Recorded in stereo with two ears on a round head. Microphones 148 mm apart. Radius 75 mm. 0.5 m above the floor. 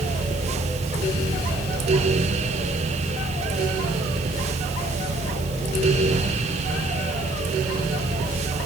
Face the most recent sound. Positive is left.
No sound to turn to.